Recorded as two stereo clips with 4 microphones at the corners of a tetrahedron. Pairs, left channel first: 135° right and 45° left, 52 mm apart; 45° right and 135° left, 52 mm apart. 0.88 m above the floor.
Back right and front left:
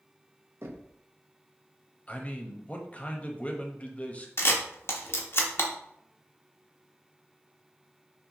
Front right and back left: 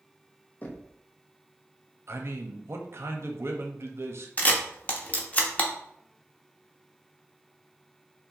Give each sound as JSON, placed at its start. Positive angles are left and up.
{"t": 0.6, "sound": "knocking", "azimuth_deg": 15, "distance_m": 0.6}
{"t": 2.1, "sound": "a man speaking", "azimuth_deg": 165, "distance_m": 0.7}
{"t": 4.4, "sound": "a camera shutter", "azimuth_deg": -105, "distance_m": 0.7}